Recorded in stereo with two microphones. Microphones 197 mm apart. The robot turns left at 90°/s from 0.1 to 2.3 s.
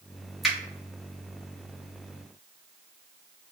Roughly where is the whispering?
I don't hear whispering.